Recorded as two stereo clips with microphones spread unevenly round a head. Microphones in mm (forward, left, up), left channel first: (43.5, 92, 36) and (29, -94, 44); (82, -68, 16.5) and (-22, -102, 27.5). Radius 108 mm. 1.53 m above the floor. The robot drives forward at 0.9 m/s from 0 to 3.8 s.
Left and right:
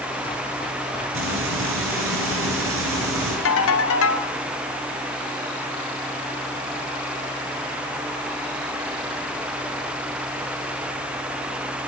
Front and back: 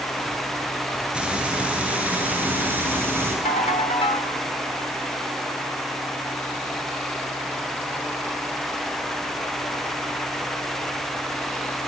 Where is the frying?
80° right, 9.5 m; by 3.4 s 95° right, 9.5 m.